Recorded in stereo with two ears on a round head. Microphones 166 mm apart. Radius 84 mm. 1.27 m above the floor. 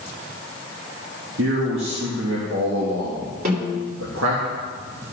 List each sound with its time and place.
1.4 s a man speaking: 70° right (ahead or behind), 2 m
3.5 s a snare drum: 50° right (ahead or behind), 3 m